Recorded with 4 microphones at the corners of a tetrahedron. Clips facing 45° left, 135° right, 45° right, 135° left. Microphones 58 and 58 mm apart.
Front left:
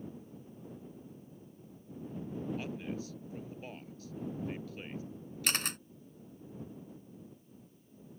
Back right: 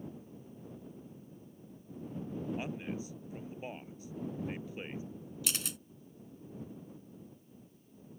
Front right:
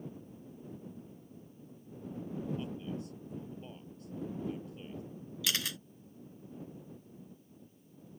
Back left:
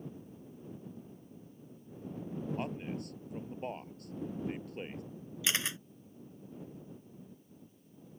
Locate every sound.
2.6 s a man speaking: 155° left
5.4 s a camera shutter: 75° left